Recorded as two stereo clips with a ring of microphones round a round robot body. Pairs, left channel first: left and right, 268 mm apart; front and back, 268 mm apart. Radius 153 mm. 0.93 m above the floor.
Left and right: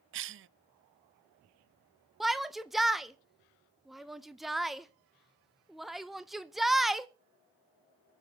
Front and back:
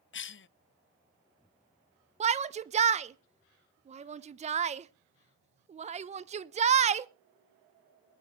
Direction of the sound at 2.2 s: Straight behind.